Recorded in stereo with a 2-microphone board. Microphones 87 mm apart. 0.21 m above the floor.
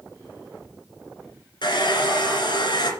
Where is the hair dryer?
65° left (ahead or behind), 2 m.